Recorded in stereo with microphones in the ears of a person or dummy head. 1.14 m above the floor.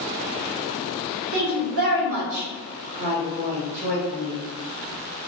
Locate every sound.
1.3 s a woman speaking: 55° right (ahead or behind), 1.6 m; by 4.4 s 25° right (ahead or behind), 1.5 m